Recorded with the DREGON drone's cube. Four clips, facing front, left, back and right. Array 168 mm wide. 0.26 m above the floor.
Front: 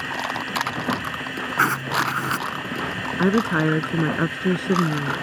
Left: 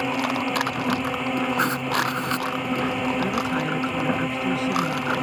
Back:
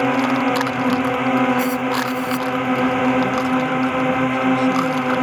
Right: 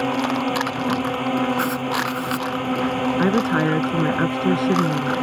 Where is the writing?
10° left.